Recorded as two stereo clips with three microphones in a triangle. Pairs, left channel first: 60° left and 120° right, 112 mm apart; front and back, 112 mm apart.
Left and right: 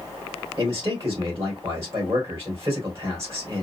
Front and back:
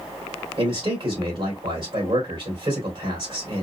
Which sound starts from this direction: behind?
A man speaking, at 0.6 s.